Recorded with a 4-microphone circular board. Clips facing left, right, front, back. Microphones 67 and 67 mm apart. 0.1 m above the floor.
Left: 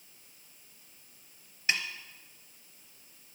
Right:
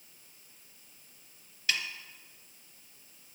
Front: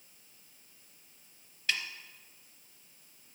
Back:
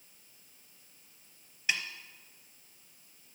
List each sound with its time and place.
1.7 s a snare drum: 120° left, 0.9 m